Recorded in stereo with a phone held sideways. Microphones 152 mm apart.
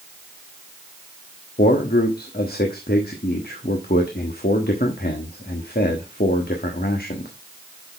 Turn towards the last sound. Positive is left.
turn(degrees=70)  # may be behind; listen again after turning